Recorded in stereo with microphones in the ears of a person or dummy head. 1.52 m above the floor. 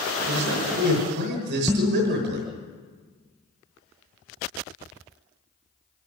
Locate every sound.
0.2 s a man speaking: 65° right (ahead or behind), 6.5 m
1.7 s dishes clattering: 5° right (ahead or behind), 0.9 m